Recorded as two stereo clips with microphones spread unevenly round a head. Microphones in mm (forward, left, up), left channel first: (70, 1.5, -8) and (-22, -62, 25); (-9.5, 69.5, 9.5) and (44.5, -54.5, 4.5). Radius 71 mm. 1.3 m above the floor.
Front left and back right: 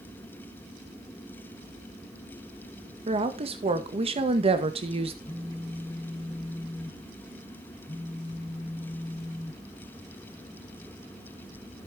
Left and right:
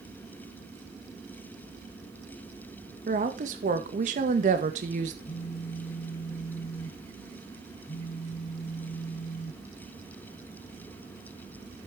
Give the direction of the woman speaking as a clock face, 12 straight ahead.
4 o'clock.